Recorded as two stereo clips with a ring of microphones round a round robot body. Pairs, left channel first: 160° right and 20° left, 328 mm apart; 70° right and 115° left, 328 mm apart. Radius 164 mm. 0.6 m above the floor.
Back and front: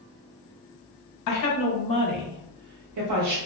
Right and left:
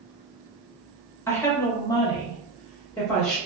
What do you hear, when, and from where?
1.3 s a woman speaking: 150° right, 0.8 m; by 3.4 s 15° left, 1.0 m